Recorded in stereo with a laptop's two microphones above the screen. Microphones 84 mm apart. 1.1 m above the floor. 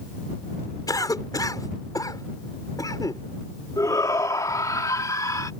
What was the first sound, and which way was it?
A cough, 50° left (ahead or behind).